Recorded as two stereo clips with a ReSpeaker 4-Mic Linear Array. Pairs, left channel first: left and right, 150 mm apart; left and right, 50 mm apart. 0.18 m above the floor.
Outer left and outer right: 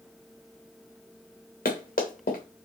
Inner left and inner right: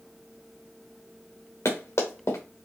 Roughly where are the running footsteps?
Left.